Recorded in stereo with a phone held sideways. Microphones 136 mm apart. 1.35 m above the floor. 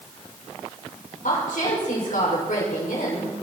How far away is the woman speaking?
About 6 m.